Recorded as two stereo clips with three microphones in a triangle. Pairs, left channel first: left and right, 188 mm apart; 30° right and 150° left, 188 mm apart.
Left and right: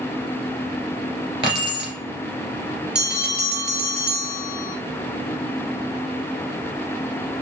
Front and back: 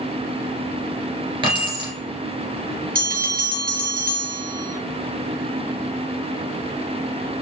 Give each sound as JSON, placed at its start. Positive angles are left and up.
{"t": 1.4, "sound": "keys jangling", "azimuth_deg": -150, "distance_m": 2.5}
{"t": 3.0, "sound": "a bell", "azimuth_deg": -175, "distance_m": 1.2}